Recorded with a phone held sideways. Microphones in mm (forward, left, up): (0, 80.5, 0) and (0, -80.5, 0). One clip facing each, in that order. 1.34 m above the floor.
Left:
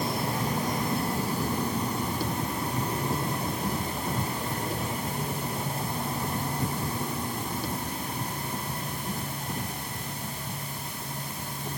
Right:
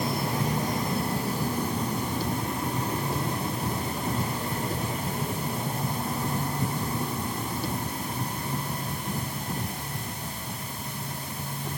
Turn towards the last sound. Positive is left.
No sound to turn to.